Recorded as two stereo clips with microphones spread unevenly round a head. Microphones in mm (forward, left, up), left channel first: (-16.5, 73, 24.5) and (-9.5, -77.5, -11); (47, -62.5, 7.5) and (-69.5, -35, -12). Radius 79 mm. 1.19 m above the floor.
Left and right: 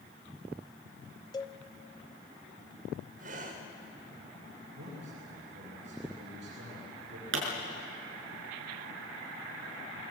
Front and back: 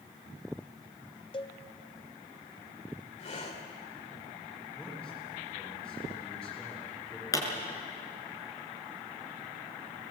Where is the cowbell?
35° left, 0.9 m.